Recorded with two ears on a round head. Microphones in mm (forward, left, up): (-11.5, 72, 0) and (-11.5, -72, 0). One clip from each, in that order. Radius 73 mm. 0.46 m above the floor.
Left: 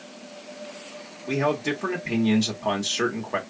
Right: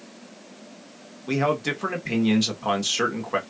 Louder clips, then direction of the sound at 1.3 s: Right 1 dB; 20° right (ahead or behind).